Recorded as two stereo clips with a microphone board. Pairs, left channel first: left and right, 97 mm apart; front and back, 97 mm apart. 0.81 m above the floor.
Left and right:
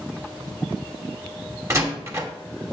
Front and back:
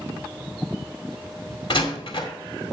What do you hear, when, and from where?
1.7 s a door slam: 30° right, 2.0 m